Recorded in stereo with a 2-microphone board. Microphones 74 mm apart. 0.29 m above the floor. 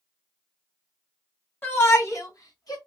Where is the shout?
30° left (ahead or behind), 2 m; by 2.8 s 60° left (ahead or behind), 2.5 m.